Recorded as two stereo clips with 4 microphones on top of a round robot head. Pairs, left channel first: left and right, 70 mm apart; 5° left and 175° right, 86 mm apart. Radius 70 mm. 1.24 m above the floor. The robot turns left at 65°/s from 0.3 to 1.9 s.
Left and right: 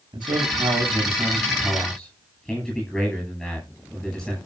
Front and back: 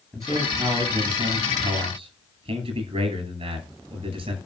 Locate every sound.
0.1 s a man speaking: 85° right, 9.5 m; by 4.3 s 175° left, 9.5 m